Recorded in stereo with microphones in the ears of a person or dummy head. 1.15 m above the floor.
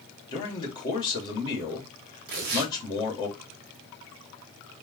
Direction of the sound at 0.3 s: 30° left (ahead or behind).